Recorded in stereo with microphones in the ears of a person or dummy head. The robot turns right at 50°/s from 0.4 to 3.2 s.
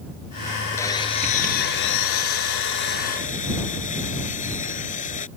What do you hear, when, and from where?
0.8 s sawing: 15° left; by 5.3 s 135° left